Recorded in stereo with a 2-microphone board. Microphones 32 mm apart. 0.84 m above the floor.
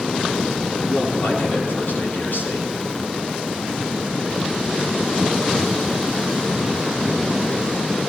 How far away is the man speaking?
About 8.5 m.